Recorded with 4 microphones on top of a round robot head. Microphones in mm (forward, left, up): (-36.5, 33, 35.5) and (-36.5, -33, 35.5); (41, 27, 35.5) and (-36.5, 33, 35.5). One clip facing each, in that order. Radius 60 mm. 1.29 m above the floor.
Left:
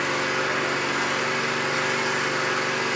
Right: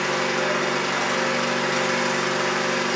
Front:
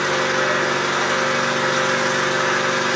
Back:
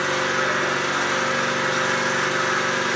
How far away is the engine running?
About 0.8 m.